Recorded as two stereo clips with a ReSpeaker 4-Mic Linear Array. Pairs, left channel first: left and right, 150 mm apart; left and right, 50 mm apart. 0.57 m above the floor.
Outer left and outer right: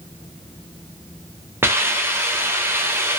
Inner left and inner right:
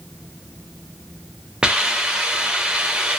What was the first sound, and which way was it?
A hiss, 15° right (ahead or behind).